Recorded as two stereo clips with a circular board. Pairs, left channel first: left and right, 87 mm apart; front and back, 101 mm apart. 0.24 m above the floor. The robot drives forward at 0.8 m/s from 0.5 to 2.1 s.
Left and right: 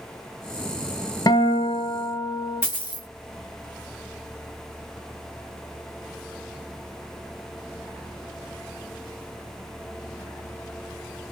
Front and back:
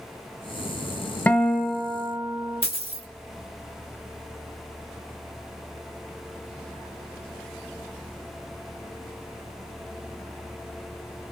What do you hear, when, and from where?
1.3 s a guitar: 70° left, 0.8 m; by 2.6 s 130° left, 0.9 m
2.6 s a dropped coin: 155° right, 1.4 m